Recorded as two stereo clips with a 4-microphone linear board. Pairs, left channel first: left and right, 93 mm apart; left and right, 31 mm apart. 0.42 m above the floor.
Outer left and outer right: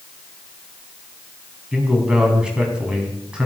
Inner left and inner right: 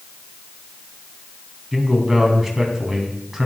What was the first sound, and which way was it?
A man speaking, 10° right (ahead or behind).